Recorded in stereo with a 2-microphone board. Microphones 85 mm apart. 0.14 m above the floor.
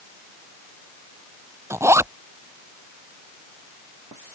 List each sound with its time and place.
1.7 s a zipper: 35° right (ahead or behind)